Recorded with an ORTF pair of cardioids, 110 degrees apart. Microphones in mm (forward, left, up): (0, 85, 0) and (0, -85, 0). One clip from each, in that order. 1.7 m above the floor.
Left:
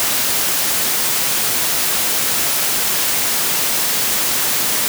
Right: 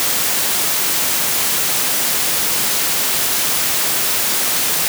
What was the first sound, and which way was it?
Only background noise.